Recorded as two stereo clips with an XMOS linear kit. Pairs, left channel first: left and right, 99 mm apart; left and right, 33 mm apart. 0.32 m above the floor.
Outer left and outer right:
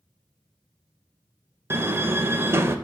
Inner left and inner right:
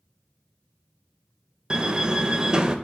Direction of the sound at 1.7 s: 25° right (ahead or behind).